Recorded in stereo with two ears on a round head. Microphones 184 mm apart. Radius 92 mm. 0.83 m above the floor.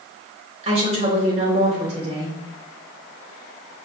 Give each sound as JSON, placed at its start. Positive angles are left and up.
{"t": 0.6, "sound": "a woman speaking", "side_deg": -30, "distance_m": 3.0}